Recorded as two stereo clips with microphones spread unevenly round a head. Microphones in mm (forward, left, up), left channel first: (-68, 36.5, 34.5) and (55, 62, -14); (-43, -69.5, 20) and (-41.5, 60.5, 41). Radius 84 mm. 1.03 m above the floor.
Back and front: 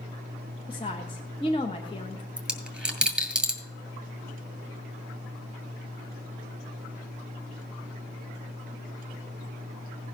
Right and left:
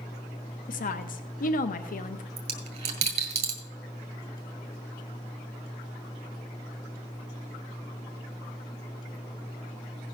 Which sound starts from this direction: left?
A dropped coin, at 2.4 s.